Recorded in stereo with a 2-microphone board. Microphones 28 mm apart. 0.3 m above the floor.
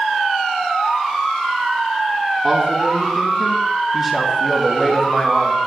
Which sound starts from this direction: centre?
A man speaking, at 2.4 s.